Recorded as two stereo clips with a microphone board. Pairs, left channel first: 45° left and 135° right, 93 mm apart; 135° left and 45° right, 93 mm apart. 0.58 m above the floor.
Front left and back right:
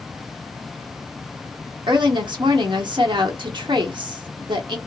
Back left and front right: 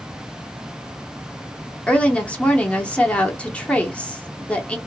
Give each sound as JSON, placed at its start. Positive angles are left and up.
{"t": 1.9, "sound": "a woman speaking", "azimuth_deg": -150, "distance_m": 0.9}